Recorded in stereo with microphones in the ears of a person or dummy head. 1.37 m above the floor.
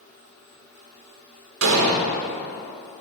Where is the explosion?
70° right (ahead or behind), 1.3 m.